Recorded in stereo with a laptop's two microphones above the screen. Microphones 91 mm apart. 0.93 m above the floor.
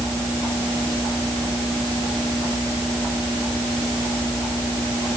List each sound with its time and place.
Only background noise.